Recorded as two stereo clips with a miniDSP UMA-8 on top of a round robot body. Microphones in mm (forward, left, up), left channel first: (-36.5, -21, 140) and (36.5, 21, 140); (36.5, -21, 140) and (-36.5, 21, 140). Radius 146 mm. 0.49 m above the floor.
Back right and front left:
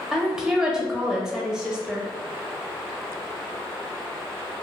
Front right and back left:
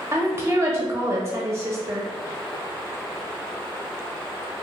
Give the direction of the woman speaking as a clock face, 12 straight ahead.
8 o'clock.